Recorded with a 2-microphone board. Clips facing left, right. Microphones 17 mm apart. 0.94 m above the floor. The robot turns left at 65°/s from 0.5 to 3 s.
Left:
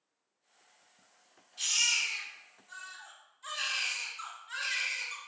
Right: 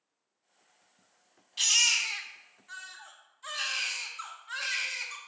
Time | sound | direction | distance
1.6 | a baby crying | 65° right | 0.7 m